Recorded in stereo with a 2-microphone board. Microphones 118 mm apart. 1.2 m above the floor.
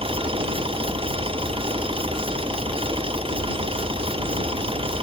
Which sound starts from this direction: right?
An engine running, at 0.0 s.